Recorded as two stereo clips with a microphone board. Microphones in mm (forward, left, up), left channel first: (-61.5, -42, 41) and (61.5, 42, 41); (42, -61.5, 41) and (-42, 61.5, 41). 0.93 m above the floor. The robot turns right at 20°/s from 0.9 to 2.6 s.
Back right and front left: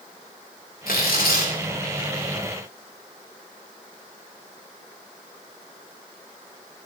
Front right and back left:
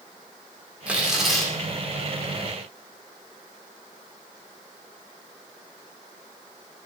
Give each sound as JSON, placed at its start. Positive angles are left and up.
{"t": 0.9, "sound": "tearing paper", "azimuth_deg": -155, "distance_m": 2.5}